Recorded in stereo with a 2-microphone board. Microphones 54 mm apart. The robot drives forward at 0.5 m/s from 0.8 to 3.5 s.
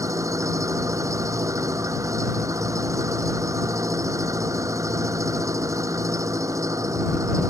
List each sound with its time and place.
0.0 s an engine running: 85° right